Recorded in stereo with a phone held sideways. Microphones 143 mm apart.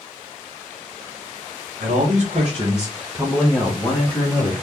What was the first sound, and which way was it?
A man speaking, 65° right (ahead or behind).